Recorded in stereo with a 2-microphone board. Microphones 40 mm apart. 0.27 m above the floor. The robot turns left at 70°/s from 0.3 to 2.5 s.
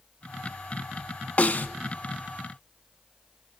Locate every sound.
1.4 s a snare drum: 45° left (ahead or behind), 0.6 m; by 1.7 s 65° left (ahead or behind), 0.6 m